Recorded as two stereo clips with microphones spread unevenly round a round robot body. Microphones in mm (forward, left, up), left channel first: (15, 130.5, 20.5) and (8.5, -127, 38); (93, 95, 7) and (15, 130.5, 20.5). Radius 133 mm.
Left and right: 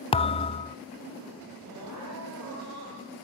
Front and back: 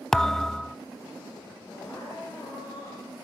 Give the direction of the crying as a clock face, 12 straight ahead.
4 o'clock.